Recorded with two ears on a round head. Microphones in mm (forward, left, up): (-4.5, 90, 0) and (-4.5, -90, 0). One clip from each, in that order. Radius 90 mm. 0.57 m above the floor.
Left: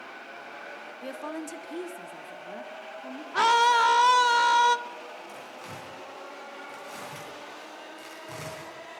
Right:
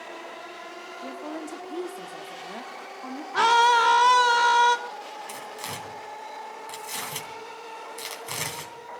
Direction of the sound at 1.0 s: 40° left (ahead or behind).